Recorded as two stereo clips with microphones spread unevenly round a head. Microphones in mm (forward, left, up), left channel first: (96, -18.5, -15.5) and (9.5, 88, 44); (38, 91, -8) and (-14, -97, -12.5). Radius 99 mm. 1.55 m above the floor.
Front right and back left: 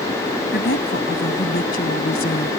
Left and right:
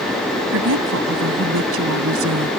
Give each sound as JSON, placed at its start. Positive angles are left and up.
{"t": 0.5, "sound": "a woman speaking", "azimuth_deg": -90}